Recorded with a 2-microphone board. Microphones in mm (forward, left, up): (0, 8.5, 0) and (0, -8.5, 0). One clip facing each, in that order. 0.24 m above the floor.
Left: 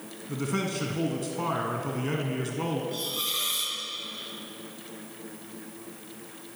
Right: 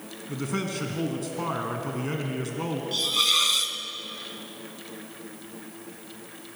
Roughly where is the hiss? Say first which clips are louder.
Right 8 dB; right.